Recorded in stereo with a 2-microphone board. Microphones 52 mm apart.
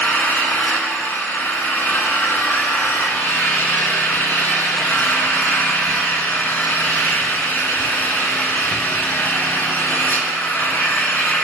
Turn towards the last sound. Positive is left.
turn(degrees=40)  # may be behind; listen again after turning